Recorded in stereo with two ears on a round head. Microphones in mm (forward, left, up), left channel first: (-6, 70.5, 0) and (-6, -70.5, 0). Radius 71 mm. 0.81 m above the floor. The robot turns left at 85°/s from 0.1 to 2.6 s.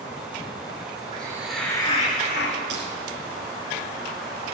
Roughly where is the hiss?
Behind right.